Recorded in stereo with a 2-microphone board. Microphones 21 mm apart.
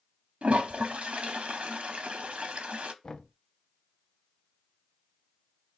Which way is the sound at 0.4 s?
80° right.